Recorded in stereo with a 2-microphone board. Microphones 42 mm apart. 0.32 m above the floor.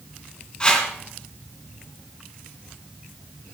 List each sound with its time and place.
0.6 s a whoosh: 25° left (ahead or behind), 3 m